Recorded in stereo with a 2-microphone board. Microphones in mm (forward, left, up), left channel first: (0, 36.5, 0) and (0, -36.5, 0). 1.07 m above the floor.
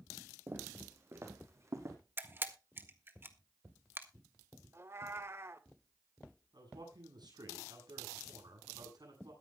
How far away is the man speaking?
About 8 m.